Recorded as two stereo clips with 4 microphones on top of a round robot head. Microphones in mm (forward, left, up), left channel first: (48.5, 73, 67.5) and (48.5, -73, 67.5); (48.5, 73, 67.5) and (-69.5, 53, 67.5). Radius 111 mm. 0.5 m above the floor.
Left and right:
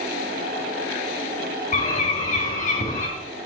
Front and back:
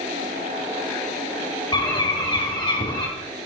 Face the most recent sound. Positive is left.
turn(degrees=55)